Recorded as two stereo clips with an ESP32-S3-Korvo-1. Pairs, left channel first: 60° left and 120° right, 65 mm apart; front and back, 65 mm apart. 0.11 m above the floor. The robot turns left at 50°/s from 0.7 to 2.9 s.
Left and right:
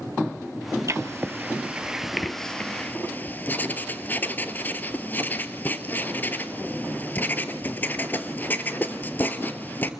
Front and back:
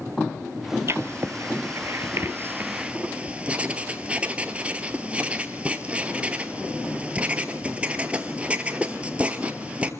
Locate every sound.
0.9 s writing: 145° right, 1.1 m; by 9.9 s 115° left, 1.1 m